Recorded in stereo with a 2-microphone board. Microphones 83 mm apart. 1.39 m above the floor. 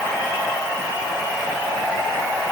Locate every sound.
Only background noise.